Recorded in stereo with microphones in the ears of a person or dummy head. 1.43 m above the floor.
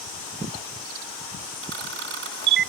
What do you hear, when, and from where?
1.6 s a camera shutter: 65° right (ahead or behind)